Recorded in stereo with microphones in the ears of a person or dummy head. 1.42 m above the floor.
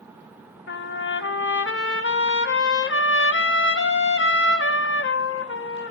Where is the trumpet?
55° left (ahead or behind), 0.6 m.